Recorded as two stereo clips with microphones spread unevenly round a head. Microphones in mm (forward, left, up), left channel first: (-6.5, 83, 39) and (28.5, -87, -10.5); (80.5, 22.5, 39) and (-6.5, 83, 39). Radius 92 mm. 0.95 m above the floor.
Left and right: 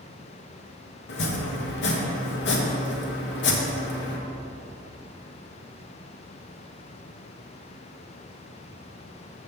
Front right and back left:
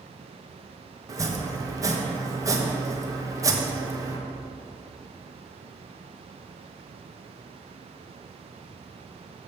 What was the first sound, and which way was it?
Chopping, 100° left.